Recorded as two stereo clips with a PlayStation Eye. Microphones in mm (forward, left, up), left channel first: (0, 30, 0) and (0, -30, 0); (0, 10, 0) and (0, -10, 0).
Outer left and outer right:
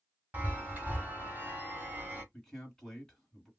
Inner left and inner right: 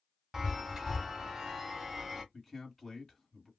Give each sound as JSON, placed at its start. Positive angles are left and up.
{"t": 0.3, "sound": "a chime", "side_deg": -25, "distance_m": 1.3}
{"t": 2.3, "sound": "a man speaking", "side_deg": 10, "distance_m": 1.8}